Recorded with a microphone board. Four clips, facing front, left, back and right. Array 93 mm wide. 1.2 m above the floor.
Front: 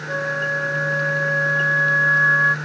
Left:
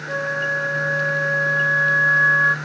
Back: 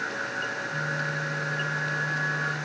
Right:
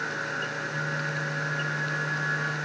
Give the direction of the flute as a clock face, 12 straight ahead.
10 o'clock.